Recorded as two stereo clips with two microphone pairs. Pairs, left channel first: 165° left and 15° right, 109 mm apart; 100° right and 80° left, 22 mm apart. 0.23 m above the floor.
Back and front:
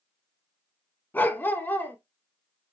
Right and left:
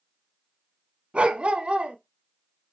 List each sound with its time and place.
1.1 s a dog barking: 100° left, 0.8 m